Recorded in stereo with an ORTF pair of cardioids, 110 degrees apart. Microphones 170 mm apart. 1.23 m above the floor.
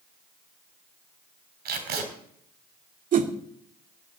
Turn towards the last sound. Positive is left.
turn(degrees=-55)